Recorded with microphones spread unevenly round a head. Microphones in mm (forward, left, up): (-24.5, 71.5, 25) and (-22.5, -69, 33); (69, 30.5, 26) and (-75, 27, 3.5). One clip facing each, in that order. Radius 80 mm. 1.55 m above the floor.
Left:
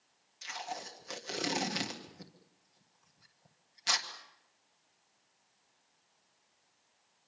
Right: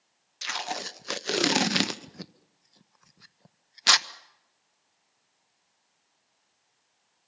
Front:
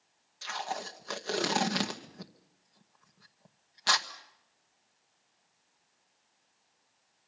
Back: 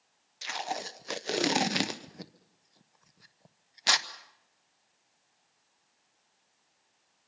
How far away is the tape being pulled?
About 1.0 m.